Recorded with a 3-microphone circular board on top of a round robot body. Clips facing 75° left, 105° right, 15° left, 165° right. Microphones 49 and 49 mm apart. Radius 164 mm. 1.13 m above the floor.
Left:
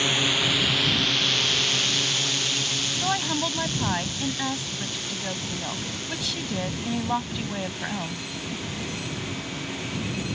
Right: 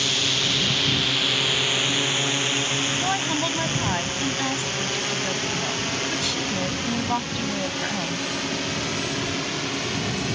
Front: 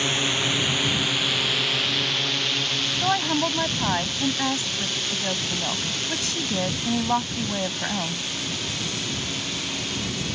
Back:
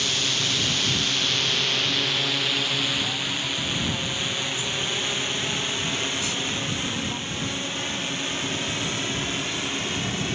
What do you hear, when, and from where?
0.0 s a drone: 35° left; by 10.4 s 105° right
3.0 s a woman speaking: 15° right